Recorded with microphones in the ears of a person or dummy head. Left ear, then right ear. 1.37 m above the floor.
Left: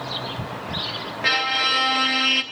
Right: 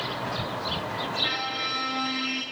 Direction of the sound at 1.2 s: 35° left (ahead or behind).